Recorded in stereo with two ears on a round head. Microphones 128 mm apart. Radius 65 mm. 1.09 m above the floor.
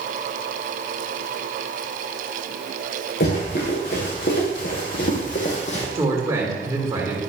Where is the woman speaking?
20° right (ahead or behind), 2.5 m.